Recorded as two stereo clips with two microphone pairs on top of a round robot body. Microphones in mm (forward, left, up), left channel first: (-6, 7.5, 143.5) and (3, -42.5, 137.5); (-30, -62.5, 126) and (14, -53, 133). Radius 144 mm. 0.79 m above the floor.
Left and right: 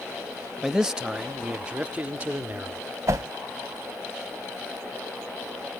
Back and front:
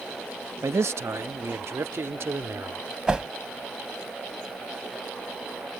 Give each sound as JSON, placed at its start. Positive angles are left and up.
{"t": 0.6, "sound": "a man speaking", "azimuth_deg": 0}
{"t": 3.1, "sound": "a whoosh", "azimuth_deg": -60}